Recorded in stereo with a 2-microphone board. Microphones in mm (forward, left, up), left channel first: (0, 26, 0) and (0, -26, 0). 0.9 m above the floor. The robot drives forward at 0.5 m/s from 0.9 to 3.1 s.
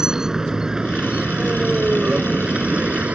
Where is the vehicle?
10° right (ahead or behind); by 3.2 s 25° right (ahead or behind).